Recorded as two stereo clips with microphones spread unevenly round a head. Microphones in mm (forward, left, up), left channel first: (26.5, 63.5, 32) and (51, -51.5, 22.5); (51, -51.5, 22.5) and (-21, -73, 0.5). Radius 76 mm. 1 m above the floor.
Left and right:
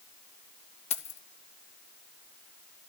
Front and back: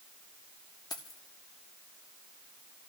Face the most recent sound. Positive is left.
turn(degrees=75)